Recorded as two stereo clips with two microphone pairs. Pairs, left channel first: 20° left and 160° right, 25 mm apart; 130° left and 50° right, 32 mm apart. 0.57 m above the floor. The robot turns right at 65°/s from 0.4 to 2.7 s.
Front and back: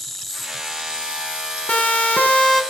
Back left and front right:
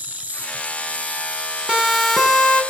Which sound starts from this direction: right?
An insect, at 0.0 s.